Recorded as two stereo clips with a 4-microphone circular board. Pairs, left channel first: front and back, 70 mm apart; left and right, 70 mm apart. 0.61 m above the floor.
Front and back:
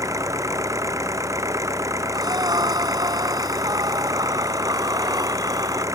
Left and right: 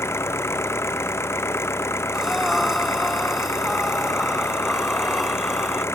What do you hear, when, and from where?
0.0 s an engine running: 140° left
2.1 s breathing: straight behind